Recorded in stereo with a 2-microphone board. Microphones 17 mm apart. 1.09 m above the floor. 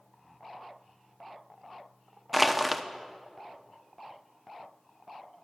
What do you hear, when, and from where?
2.3 s crushing: 5° right (ahead or behind), 0.7 m